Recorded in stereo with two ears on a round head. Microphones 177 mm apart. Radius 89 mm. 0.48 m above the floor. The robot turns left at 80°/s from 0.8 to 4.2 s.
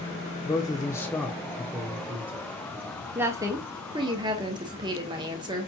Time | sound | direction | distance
0.5 | a man speaking | 20° left (ahead or behind) | 0.7 m
3.1 | a woman speaking | 10° right (ahead or behind) | 0.9 m